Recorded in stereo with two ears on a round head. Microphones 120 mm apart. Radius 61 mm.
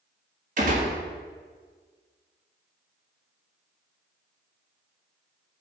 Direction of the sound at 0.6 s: 60° right (ahead or behind).